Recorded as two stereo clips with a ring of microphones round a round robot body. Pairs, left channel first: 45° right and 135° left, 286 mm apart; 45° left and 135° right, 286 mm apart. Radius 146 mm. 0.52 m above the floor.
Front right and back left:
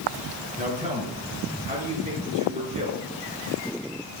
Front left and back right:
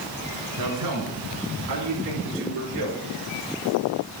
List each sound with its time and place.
0.6 s a man speaking: 160° right, 6 m